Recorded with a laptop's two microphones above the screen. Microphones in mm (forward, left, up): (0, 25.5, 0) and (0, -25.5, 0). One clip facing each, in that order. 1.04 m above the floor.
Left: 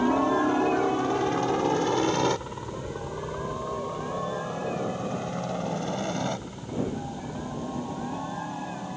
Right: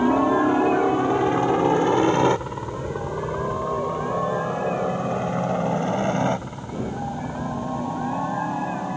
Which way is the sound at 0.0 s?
15° right (ahead or behind).